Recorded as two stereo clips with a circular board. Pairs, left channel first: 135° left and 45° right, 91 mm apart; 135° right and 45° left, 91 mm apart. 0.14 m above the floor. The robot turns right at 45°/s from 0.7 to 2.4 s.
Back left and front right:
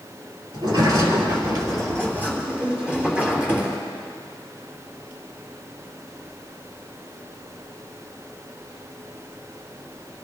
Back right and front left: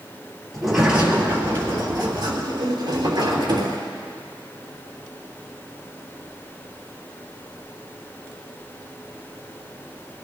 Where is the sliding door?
45° right, 3 m; by 3.8 s 30° left, 3 m.